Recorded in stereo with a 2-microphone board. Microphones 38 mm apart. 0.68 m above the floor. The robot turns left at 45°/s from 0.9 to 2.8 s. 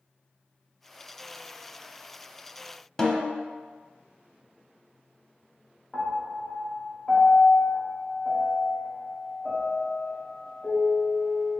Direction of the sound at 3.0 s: 10° left (ahead or behind).